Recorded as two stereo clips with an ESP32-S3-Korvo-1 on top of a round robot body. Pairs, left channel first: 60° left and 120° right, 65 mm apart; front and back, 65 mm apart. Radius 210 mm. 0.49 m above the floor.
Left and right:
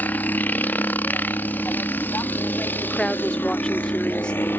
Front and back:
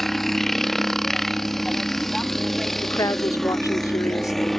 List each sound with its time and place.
0.0 s a helicopter: 85° left
2.8 s a woman speaking: 15° right